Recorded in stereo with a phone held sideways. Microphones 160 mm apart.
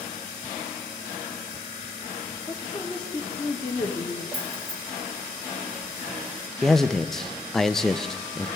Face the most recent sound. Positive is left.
turn(degrees=0)  # may be behind; listen again after turning